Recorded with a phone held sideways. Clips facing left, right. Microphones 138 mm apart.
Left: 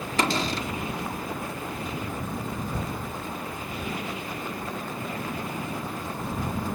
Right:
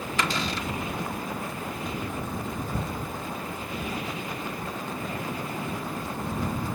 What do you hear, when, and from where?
0.2 s a cupboard door: 40° left (ahead or behind)